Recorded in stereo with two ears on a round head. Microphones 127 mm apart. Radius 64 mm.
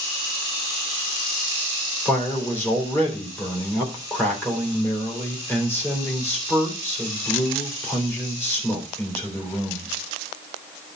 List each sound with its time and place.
2.0 s a man speaking: 15° left (ahead or behind), 3.5 m